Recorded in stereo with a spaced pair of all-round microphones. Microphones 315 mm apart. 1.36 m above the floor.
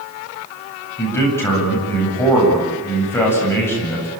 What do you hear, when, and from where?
1.0 s a man speaking: 5° left (ahead or behind), 9 m